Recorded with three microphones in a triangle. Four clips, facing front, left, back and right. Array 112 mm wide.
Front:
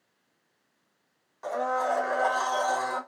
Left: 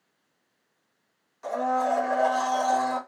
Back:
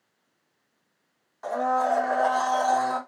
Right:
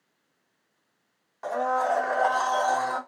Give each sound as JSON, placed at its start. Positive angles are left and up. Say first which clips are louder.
{"t": 1.4, "sound": "a blender", "louder": "even, back 4 dB", "azimuth_deg": -95, "distance_m": 1.3}